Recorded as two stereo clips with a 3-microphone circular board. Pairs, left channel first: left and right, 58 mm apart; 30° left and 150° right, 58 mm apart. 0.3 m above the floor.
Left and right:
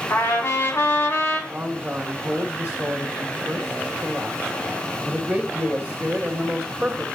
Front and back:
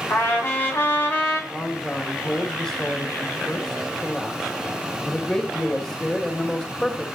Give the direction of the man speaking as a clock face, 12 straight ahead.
1 o'clock.